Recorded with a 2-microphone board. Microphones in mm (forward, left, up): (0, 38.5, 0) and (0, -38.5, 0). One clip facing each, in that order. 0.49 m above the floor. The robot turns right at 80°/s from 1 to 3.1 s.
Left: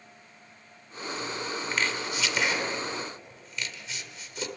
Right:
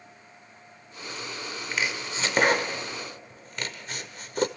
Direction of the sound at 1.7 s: 5° right (ahead or behind).